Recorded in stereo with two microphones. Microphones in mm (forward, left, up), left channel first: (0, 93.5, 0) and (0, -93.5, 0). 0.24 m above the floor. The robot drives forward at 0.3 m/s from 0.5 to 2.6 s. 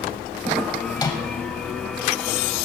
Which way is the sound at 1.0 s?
20° left (ahead or behind).